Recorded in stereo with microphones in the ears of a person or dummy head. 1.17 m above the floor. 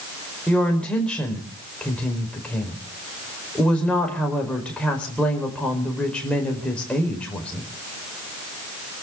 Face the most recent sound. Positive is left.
turn(degrees=5)  # may be behind; listen again after turning